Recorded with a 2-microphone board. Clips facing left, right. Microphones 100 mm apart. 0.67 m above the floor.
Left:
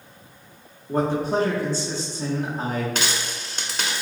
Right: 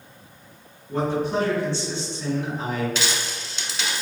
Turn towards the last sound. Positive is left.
turn(degrees=50)  # may be behind; listen again after turning